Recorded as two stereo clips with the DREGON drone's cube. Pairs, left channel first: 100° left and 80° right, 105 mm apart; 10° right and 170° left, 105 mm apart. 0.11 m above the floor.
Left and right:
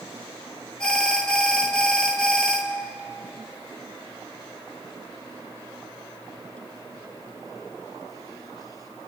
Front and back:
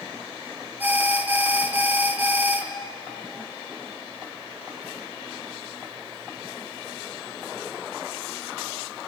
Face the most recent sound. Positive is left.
turn(degrees=160)